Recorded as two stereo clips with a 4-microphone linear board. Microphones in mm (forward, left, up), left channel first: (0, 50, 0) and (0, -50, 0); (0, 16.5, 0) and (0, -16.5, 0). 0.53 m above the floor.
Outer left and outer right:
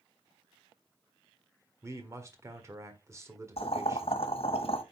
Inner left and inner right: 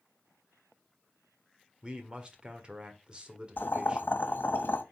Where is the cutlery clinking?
I don't hear cutlery clinking.